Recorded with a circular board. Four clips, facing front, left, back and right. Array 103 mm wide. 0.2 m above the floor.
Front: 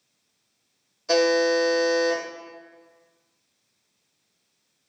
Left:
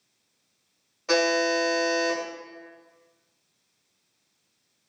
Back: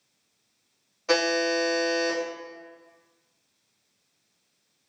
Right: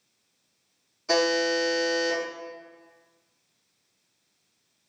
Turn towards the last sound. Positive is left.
turn(degrees=140)